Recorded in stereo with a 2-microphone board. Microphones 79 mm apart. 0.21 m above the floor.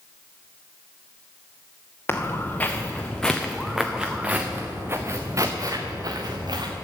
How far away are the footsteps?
About 1.6 m.